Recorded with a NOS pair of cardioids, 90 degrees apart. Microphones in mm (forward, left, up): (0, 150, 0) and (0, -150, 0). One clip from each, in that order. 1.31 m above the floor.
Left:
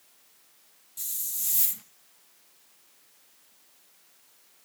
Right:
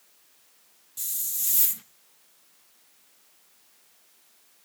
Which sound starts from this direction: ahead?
A hiss, at 1.0 s.